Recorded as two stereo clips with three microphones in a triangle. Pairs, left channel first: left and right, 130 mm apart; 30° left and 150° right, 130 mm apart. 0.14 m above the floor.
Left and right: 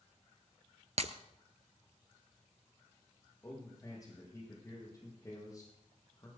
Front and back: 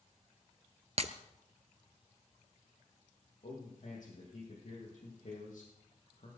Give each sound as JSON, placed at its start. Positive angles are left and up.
{"t": 1.0, "sound": "breaking glass", "azimuth_deg": -120, "distance_m": 0.9}
{"t": 3.4, "sound": "a man speaking", "azimuth_deg": 30, "distance_m": 5.0}